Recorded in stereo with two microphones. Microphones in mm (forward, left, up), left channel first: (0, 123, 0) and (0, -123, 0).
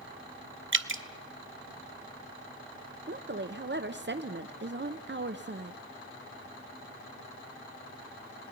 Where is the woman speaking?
45° right (ahead or behind), 0.7 m.